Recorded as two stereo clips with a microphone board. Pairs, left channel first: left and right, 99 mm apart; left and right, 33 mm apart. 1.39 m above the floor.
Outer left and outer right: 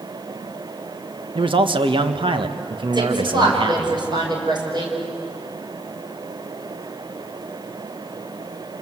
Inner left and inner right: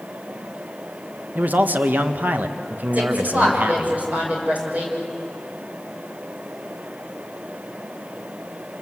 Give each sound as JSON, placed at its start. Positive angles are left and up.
{"t": 1.4, "sound": "a man speaking", "side_deg": -55, "distance_m": 1.6}
{"t": 2.9, "sound": "a woman speaking", "side_deg": -45, "distance_m": 6.0}